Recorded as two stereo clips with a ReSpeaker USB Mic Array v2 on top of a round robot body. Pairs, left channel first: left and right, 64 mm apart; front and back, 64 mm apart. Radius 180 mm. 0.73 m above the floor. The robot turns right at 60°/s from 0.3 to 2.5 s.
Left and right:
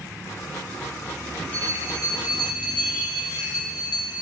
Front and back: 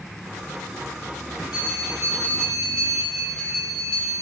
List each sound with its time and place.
1.5 s a bell: 15° left, 2.5 m; by 4.1 s 75° left, 2.5 m